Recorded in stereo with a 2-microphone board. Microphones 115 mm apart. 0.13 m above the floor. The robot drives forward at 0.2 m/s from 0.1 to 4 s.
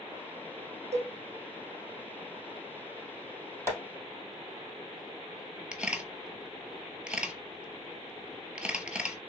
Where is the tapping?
25° right (ahead or behind), 3 m.